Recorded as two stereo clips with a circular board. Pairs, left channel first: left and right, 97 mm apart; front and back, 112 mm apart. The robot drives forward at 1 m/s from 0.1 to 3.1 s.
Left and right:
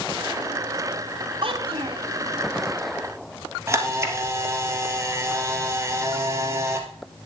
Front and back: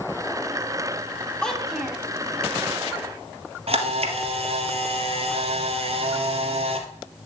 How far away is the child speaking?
About 2.5 m.